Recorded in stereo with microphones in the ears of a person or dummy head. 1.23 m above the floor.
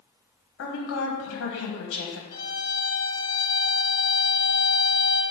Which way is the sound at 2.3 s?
25° left (ahead or behind).